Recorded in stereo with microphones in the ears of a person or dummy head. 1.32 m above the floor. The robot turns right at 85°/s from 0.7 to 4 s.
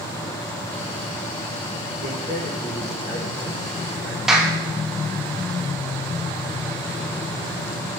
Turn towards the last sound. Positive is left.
turn(degrees=-5)  # may be behind; listen again after turning